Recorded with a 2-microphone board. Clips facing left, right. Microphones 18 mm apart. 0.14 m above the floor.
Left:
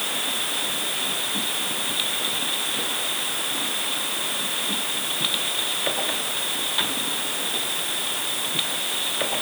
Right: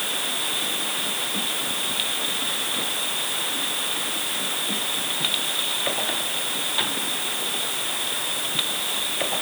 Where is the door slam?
I don't hear a door slam.